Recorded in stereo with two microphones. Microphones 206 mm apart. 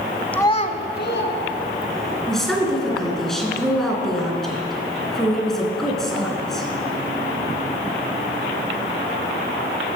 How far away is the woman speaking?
About 3 m.